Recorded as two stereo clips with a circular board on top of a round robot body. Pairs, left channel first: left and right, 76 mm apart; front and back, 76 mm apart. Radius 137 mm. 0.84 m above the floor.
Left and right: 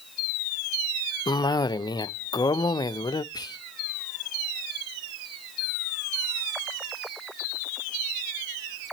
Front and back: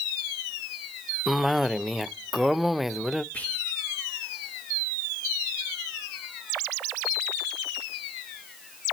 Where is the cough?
90° left, 0.6 m.